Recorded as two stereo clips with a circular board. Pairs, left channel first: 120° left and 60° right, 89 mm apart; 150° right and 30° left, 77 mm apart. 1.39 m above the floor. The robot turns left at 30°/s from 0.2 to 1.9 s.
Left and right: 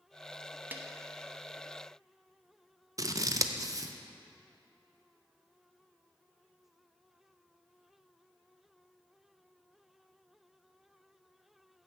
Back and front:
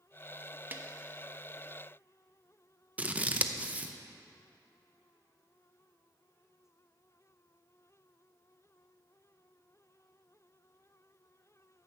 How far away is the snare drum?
About 0.7 m.